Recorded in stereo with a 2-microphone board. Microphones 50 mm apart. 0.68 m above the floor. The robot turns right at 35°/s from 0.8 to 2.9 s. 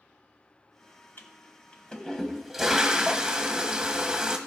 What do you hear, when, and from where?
1.2 s a toilet flushing: 135° left, 1.2 m; by 4.4 s 165° right, 1.2 m